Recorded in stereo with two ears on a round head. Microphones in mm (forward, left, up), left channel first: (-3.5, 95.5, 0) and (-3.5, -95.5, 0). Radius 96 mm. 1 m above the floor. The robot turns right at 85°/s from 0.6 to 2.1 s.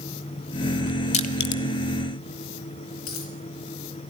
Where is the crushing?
35° left (ahead or behind), 1.5 m; by 1.6 s 65° left (ahead or behind), 1.5 m.